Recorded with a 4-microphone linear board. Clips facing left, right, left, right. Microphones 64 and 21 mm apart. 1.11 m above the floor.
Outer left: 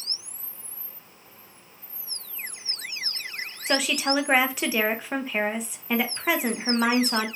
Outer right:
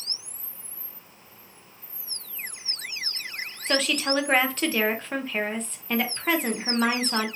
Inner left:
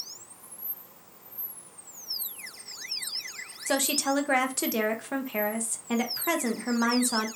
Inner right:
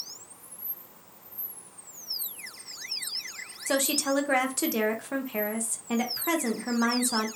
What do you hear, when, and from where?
3.7 s a woman speaking: 5° left (ahead or behind), 0.6 m